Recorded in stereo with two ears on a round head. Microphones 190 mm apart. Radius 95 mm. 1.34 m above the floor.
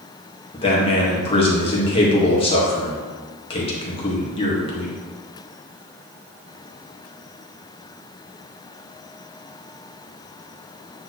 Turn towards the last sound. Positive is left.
turn(degrees=25)  # may be behind; listen again after turning